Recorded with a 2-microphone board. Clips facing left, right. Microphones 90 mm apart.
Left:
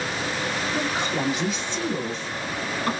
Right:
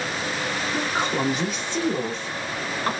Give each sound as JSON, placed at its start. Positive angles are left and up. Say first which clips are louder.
{"t": 0.7, "sound": "a woman speaking", "louder": "right 3 dB", "side_deg": -35, "distance_m": 1.5}